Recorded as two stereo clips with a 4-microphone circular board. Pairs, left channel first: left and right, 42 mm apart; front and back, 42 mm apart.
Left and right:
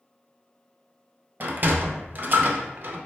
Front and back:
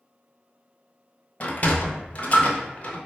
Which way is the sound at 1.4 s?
50° right.